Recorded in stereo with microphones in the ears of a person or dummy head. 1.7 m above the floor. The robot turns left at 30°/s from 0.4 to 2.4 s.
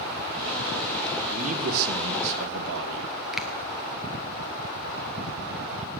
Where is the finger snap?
Centre (ahead or behind), 1.1 m.